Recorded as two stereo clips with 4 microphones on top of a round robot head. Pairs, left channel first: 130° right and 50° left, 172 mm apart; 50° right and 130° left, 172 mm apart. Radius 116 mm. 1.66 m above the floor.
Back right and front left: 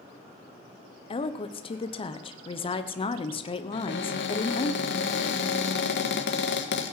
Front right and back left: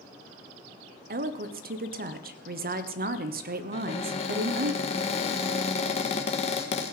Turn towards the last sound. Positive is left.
turn(degrees=-105)